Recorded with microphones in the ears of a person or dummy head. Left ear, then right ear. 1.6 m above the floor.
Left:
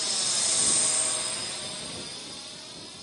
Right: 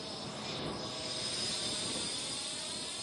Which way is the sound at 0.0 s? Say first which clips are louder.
Left 13 dB; 65° left (ahead or behind).